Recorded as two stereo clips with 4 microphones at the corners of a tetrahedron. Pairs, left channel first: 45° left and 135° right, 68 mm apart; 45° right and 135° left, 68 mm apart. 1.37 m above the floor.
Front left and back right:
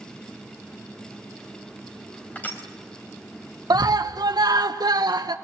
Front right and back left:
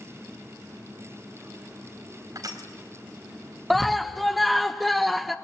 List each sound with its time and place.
2.4 s crushing: 110° left, 3.5 m
3.7 s a scream: 135° right, 1.4 m